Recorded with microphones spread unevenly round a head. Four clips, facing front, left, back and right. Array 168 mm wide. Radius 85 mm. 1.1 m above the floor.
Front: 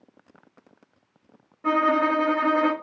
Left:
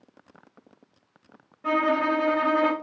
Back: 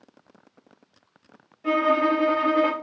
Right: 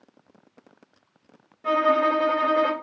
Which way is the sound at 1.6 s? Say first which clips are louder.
Right 3 dB, even; 5° right.